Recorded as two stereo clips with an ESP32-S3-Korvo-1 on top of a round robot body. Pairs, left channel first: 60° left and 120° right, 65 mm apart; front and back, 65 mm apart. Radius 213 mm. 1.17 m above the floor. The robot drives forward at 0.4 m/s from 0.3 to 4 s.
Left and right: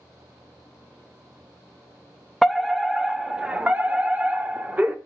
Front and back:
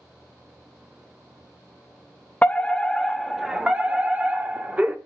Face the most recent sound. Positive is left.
turn(degrees=-145)